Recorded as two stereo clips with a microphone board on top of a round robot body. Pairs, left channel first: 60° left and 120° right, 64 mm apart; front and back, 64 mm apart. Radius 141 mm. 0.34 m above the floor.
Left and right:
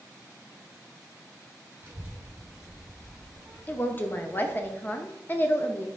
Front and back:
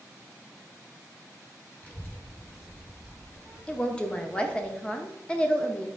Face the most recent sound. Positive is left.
turn(degrees=55)